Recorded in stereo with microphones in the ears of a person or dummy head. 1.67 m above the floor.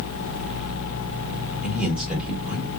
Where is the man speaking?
10° right (ahead or behind), 1.7 m.